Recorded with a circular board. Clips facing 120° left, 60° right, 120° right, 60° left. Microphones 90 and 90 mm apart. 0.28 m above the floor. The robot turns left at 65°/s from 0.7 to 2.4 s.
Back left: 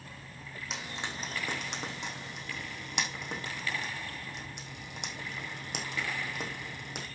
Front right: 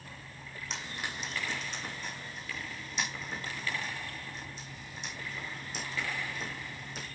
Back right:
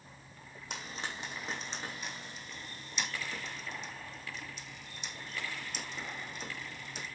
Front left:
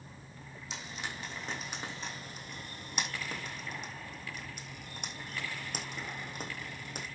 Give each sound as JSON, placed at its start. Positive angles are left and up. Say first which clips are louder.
{"t": 0.7, "sound": "frying", "louder": "even, back right 1 dB", "azimuth_deg": -155, "distance_m": 4.5}